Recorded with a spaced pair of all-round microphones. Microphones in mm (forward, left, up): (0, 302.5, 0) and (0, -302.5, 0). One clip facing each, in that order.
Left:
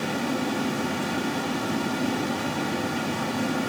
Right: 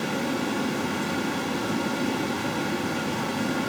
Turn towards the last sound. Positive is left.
turn(degrees=5)  # may be behind; listen again after turning